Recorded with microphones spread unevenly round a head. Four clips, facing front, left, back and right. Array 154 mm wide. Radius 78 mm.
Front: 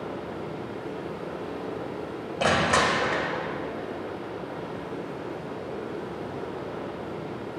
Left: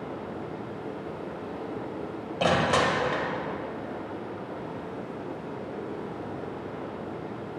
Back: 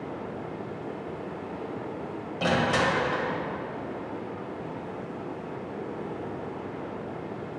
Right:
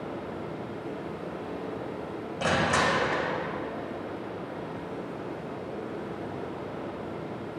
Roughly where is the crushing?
Ahead left.